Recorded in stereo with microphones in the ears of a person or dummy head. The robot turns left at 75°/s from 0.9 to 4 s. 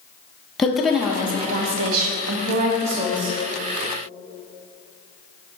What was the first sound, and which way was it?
A woman speaking, 10° left.